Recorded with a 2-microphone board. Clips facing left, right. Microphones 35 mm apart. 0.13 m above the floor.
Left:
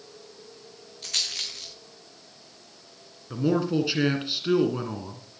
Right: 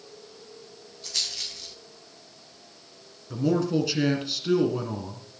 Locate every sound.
1.0 s a rattle: 65° left (ahead or behind), 4.5 m
3.3 s a man speaking: 20° left (ahead or behind), 1.7 m